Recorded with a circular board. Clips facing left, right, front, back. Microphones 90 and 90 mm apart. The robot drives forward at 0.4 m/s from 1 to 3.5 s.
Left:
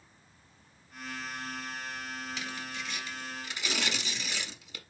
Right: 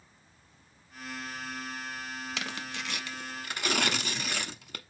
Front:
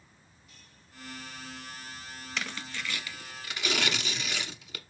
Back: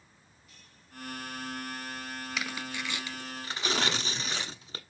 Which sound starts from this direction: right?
Tearing paper, at 2.4 s.